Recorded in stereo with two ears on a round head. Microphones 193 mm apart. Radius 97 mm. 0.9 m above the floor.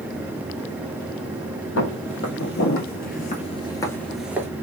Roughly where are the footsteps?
Left.